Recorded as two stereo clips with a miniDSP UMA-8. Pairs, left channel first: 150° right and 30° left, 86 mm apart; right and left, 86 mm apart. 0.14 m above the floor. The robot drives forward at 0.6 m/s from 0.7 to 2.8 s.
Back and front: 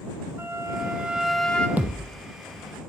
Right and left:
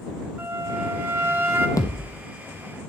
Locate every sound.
0.4 s a flute: 50° left, 0.7 m; by 1.7 s 140° left, 0.7 m
1.8 s a thud: 40° right, 1.0 m; by 2.1 s 50° right, 0.9 m